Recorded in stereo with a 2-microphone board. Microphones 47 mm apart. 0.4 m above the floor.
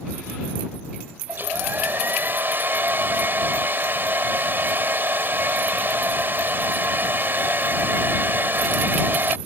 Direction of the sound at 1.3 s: 50° right (ahead or behind).